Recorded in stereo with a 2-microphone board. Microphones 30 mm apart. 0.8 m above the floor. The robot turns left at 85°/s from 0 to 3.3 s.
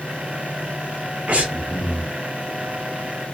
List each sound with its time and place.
1.3 s breathing: 50° right, 0.6 m; by 2.1 s 125° right, 0.6 m